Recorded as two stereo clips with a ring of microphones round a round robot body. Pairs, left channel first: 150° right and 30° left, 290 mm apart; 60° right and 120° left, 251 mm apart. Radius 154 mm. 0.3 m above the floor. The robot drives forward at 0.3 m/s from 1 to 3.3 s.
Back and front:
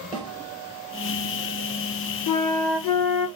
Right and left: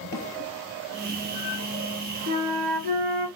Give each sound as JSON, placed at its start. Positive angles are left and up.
{"t": 0.1, "sound": "a snare drum", "azimuth_deg": -45, "distance_m": 3.0}
{"t": 2.3, "sound": "a flute", "azimuth_deg": 180, "distance_m": 1.2}